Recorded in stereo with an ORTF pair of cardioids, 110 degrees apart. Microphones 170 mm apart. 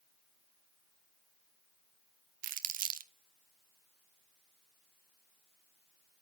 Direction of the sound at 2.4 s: 60° right.